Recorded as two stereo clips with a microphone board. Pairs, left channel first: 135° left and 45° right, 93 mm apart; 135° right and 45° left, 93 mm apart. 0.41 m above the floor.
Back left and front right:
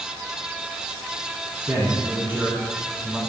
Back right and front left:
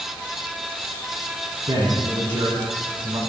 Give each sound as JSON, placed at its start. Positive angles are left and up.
{"t": 1.7, "sound": "a man speaking", "azimuth_deg": 15, "distance_m": 3.0}